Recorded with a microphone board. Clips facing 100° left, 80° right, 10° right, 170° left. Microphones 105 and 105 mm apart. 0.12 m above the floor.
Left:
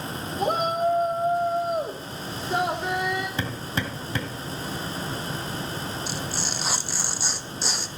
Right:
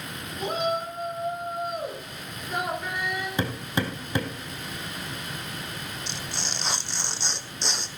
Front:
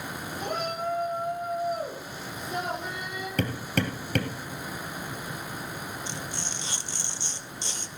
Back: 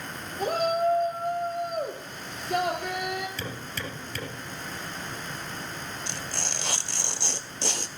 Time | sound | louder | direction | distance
0.4 | a shout | left 4 dB, back 7 dB | 135° left | 2.5 m
3.4 | hammering | right 2 dB, front 7 dB | 10° right | 2.5 m
6.1 | tearing paper | left 4 dB, even | 175° right | 0.8 m